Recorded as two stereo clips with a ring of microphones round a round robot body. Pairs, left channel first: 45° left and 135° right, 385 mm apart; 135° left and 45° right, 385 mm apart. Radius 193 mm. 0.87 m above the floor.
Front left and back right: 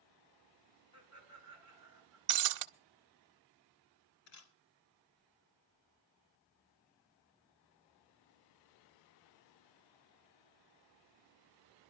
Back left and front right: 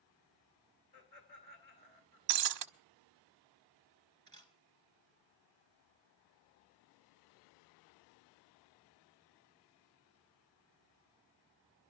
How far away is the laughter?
About 10 m.